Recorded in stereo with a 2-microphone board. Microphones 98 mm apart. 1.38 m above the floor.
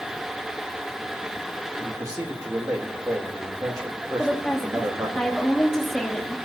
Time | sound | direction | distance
1.8 | a man speaking | 40° right (ahead or behind) | 3 m
4.2 | a woman speaking | 5° left (ahead or behind) | 2 m